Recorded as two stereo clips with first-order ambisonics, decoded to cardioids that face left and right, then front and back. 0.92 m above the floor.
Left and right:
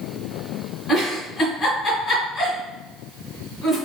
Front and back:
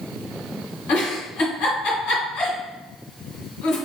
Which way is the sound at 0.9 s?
5° left.